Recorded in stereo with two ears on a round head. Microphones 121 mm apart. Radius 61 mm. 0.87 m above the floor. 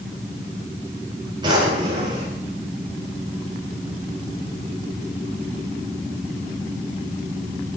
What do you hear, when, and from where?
1.4 s a drawer: 35° right (ahead or behind), 10 m